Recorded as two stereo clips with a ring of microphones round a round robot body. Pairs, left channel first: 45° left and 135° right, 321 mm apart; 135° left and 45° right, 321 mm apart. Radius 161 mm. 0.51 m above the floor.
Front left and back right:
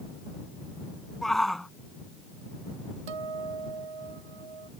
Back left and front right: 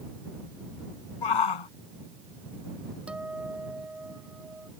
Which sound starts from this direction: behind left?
A shout, at 1.2 s.